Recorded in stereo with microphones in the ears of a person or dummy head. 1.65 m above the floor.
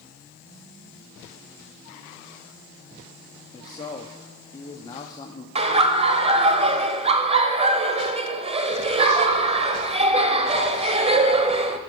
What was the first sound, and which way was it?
A man speaking, 25° left (ahead or behind).